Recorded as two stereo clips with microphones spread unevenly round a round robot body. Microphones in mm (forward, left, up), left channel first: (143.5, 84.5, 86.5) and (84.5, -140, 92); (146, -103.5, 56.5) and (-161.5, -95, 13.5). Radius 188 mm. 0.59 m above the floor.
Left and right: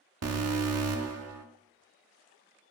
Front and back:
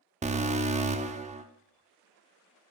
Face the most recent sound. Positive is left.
turn(degrees=-115)